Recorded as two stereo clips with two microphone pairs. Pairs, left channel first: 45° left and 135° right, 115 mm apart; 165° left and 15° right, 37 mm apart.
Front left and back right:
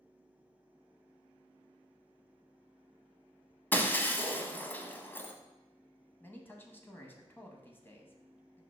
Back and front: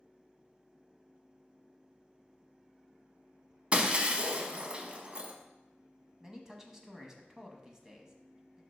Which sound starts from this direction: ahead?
Breaking glass, at 3.7 s.